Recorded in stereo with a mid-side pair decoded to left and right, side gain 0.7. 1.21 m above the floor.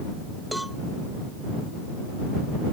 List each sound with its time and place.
0.5 s a cowbell: 5° right